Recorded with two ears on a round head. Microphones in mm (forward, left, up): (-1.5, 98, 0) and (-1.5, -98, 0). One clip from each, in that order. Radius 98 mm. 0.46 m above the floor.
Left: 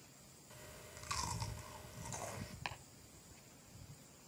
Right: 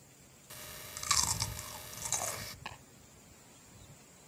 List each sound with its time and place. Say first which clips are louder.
0.5 s chewing: right 9 dB; 50° right (ahead or behind), 0.9 m
2.6 s chopping: left 4 dB; 60° left (ahead or behind), 3 m